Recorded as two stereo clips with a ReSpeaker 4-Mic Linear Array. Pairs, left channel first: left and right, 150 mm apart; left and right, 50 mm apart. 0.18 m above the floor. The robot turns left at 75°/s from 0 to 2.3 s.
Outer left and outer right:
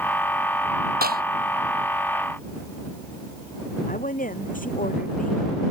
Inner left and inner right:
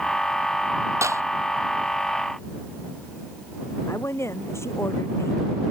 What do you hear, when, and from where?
1.0 s a clap: 75° right (ahead or behind)
3.9 s a woman speaking: 60° left (ahead or behind)